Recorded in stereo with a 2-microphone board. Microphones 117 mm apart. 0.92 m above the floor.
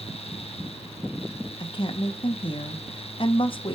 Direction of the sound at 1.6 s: 50° left (ahead or behind).